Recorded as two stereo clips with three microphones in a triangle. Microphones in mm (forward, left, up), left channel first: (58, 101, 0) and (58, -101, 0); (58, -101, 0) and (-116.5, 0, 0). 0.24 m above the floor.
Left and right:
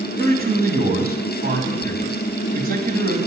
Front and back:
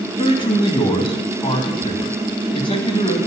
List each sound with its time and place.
0.2 s a man speaking: 85° right, 1.8 m